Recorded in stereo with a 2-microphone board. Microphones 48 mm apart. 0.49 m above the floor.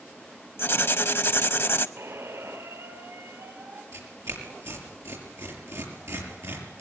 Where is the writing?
60° left (ahead or behind), 0.6 m.